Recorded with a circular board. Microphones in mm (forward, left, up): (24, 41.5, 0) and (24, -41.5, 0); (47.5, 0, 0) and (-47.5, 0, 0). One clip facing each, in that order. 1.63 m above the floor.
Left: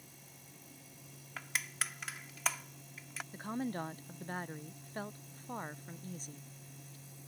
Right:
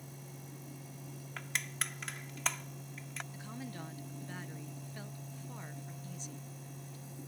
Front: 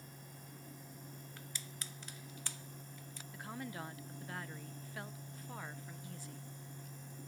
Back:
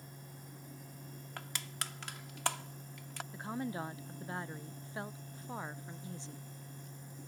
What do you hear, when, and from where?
1.4 s crushing: 175° left
3.3 s a woman speaking: 120° left